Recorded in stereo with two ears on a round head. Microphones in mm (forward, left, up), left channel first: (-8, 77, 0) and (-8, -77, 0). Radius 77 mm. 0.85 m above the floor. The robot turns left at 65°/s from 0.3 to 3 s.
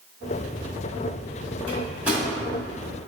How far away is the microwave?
About 1.7 m.